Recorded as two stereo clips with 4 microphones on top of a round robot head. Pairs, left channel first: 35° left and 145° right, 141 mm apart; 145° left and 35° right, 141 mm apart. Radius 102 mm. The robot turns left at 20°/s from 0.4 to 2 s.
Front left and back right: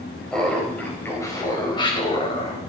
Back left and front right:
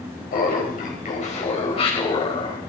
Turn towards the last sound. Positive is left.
turn(degrees=90)